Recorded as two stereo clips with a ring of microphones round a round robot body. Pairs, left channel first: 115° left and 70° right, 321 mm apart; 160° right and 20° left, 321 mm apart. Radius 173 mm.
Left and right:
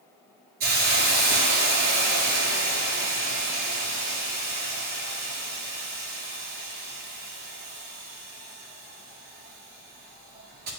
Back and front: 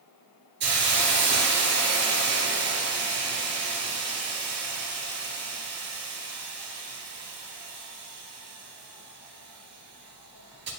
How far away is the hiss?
About 2.5 m.